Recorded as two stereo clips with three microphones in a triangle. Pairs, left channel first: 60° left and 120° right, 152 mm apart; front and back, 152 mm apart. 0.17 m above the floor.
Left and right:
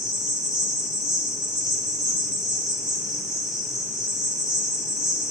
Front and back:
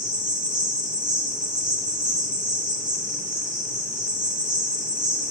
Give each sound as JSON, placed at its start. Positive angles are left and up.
{"t": 0.0, "sound": "an insect", "azimuth_deg": 160, "distance_m": 1.2}